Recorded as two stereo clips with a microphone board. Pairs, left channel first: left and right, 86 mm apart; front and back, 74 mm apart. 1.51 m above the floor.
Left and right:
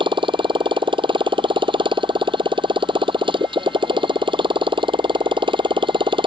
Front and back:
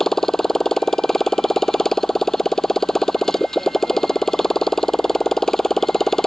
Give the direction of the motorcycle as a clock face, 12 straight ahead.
3 o'clock.